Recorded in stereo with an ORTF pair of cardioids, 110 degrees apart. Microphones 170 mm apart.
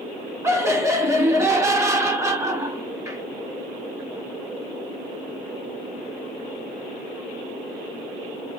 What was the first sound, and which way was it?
Laughter, 20° right.